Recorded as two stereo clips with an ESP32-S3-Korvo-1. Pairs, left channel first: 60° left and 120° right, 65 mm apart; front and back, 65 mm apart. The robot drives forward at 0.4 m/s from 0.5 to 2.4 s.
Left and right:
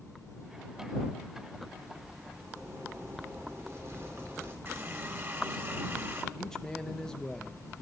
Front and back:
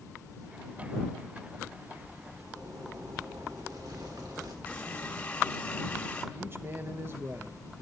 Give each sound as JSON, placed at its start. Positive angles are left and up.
{"t": 2.4, "sound": "a zipper", "azimuth_deg": -165, "distance_m": 3.0}
{"t": 4.7, "sound": "a running tap", "azimuth_deg": -70, "distance_m": 1.5}
{"t": 6.3, "sound": "a man speaking", "azimuth_deg": 140, "distance_m": 0.7}